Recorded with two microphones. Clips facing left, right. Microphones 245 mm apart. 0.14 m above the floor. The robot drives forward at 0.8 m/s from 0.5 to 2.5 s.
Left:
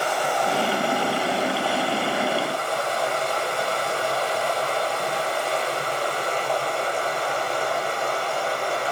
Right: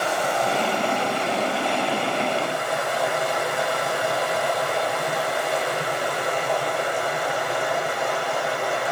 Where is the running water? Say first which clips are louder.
Right 1 dB; 25° right (ahead or behind), 8 m; by 8.9 s 20° right (ahead or behind), 9.5 m.